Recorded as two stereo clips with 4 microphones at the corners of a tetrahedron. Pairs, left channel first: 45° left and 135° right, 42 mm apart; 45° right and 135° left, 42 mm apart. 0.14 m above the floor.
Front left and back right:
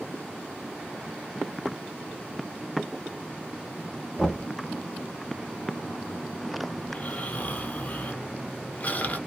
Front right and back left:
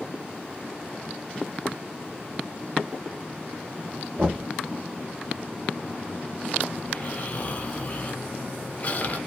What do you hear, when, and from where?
4.2 s knocking: 115° left, 1.0 m
6.8 s snoring: 5° left, 0.7 m